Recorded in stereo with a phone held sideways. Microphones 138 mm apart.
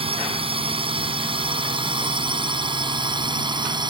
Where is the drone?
40° right (ahead or behind); by 3.9 s 30° right (ahead or behind).